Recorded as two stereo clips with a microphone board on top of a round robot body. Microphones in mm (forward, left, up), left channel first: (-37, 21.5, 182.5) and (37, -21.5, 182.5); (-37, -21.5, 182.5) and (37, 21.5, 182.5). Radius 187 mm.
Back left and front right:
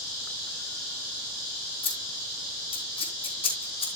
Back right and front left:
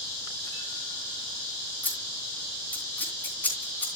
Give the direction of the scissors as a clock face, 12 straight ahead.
7 o'clock.